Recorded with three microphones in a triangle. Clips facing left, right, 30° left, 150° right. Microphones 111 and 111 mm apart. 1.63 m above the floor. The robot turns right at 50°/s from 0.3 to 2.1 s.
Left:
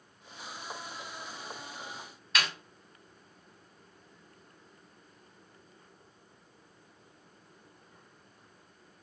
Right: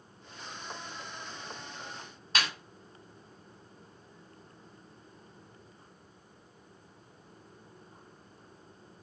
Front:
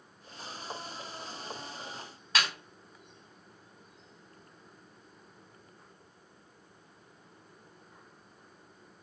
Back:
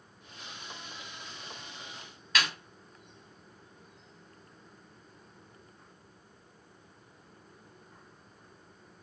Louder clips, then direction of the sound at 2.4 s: Even, even; 30° right.